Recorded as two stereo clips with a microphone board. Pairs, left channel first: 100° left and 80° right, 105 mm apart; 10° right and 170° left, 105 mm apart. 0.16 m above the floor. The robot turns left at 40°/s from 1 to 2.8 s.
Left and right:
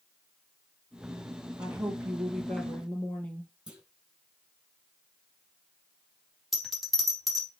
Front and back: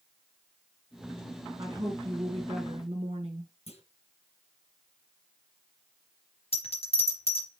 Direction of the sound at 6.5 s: 10° left.